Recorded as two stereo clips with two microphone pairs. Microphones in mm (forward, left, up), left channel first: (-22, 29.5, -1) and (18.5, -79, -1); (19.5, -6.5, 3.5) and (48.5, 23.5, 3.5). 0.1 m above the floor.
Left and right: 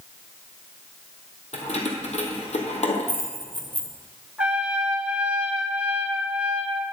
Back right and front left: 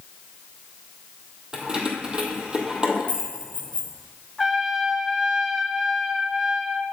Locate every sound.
1.5 s keys jangling: 115° left, 2.0 m
4.4 s a trumpet: 10° right, 0.9 m